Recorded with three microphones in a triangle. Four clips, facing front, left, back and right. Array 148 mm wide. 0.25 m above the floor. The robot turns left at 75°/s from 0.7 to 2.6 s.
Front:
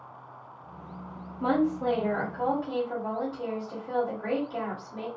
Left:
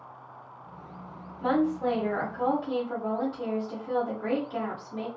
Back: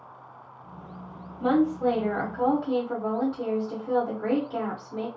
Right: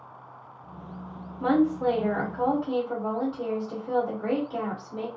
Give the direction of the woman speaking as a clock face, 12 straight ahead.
3 o'clock.